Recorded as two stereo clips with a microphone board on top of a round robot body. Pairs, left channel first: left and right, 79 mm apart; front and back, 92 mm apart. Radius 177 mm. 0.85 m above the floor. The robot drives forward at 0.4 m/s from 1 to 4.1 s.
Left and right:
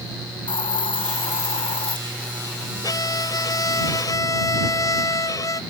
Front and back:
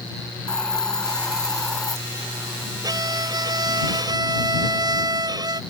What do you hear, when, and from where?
0.5 s a hiss: 85° left
2.8 s a violin: 135° left